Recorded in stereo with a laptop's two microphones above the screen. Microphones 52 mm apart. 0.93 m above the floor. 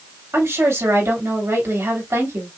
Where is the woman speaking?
65° right (ahead or behind), 2.5 m.